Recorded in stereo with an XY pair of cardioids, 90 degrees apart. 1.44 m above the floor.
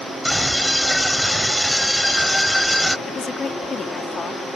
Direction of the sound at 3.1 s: 40° left.